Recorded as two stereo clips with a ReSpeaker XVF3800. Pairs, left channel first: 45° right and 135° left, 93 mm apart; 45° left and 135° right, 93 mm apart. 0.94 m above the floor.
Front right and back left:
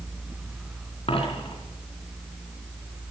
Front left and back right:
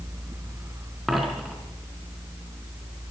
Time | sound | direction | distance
1.1 | a dropped coin | 50° right | 4.5 m